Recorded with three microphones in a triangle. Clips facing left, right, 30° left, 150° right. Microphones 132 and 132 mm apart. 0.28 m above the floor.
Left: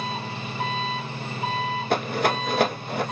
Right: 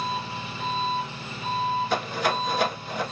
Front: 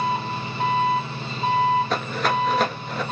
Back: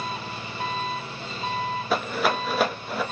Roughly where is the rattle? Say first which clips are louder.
Left 2 dB, front 1 dB; behind left.